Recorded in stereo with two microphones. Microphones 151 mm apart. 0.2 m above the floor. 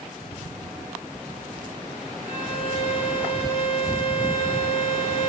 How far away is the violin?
About 6 m.